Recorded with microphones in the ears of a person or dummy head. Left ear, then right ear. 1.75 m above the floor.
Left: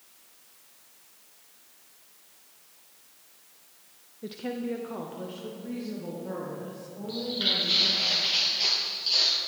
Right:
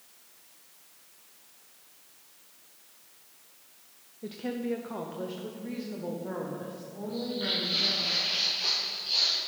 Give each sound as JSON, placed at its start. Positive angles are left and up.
{"t": 4.2, "sound": "a woman speaking", "side_deg": 5, "distance_m": 0.5}
{"t": 7.1, "sound": "footsteps", "side_deg": 40, "distance_m": 3.0}